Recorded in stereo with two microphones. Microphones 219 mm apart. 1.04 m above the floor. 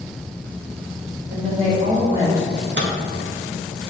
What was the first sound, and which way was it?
A woman speaking, 35° right (ahead or behind).